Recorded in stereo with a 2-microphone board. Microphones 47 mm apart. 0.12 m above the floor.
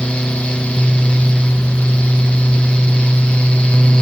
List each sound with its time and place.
Only background noise.